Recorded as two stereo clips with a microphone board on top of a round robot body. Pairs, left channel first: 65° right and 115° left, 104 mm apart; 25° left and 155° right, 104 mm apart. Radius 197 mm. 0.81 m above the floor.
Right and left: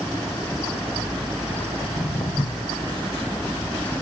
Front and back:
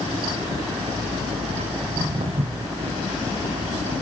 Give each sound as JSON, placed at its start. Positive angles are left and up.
{"t": 1.8, "sound": "footsteps", "azimuth_deg": -125, "distance_m": 1.9}